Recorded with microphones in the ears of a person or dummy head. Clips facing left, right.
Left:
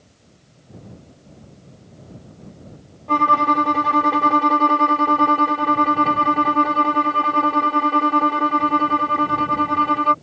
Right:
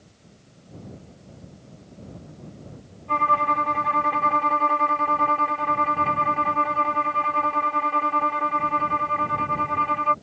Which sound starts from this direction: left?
A violin, at 3.1 s.